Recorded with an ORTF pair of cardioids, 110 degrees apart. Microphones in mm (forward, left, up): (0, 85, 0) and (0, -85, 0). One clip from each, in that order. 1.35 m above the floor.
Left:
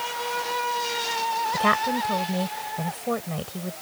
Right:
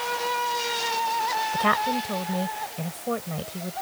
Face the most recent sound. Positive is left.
turn(degrees=10)